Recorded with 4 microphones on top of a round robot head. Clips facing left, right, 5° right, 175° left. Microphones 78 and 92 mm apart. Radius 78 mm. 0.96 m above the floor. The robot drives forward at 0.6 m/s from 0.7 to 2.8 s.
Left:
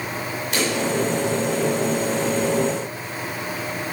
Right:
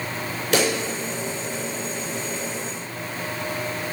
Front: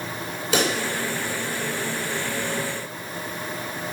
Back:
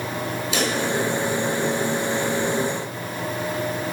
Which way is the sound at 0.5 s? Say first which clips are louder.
Right 3 dB, front 2 dB; 50° right.